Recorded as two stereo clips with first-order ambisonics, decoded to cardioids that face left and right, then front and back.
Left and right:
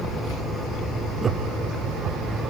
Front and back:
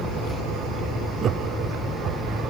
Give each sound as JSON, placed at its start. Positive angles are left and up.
{"t": 1.2, "sound": "laughter", "azimuth_deg": -150, "distance_m": 0.8}